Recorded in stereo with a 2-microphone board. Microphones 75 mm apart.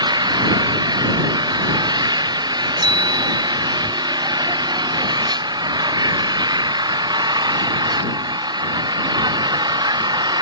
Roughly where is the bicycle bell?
Right.